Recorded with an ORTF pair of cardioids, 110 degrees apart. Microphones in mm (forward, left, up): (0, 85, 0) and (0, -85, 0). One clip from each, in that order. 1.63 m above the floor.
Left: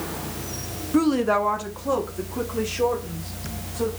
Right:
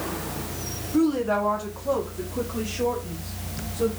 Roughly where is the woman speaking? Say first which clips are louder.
Left 2 dB; ahead left.